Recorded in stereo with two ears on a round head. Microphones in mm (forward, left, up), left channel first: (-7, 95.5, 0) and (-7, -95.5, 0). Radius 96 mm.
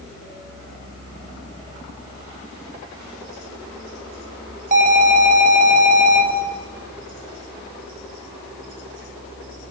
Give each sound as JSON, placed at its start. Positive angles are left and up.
{"t": 4.7, "sound": "an alarm", "side_deg": -40, "distance_m": 9.0}